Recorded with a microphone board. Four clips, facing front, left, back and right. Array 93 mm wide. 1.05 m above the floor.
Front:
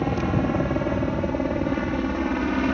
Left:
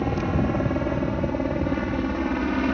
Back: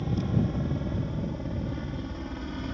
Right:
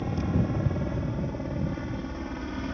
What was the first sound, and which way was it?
A helicopter, 35° left.